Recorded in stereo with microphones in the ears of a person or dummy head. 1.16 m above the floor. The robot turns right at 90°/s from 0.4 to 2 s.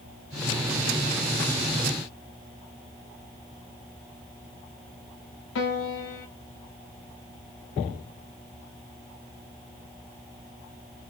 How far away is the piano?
About 1.1 m.